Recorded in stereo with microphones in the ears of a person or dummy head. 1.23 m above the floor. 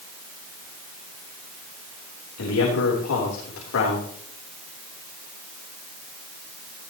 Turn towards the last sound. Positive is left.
turn(degrees=80)